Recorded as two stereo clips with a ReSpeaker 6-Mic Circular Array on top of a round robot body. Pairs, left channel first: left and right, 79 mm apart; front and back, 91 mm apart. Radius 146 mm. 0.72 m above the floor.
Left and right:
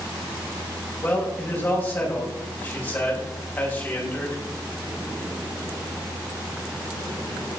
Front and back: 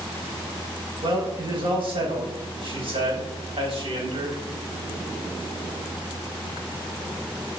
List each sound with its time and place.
1.0 s a man speaking: 160° left, 6 m